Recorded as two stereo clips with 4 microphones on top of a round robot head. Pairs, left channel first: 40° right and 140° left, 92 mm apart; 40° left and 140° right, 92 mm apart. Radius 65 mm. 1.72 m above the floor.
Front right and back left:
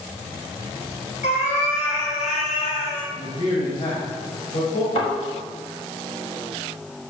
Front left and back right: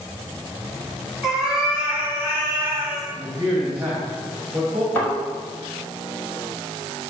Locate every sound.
1.2 s a cat meowing: 50° right, 4 m; by 3.1 s 80° right, 3 m
3.2 s a man speaking: 65° right, 3 m
5.0 s a thud: 30° right, 4.5 m